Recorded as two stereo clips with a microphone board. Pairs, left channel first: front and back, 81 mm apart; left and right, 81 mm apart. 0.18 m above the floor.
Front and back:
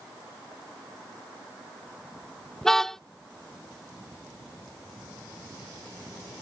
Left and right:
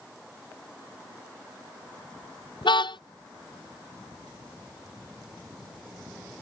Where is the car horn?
85° left.